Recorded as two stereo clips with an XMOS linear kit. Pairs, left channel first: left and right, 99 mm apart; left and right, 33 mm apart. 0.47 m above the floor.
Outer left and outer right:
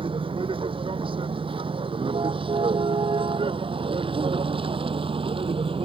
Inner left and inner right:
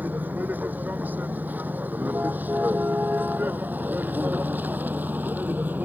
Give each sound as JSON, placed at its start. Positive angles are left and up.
{"t": 0.0, "sound": "a vehicle", "side_deg": -65}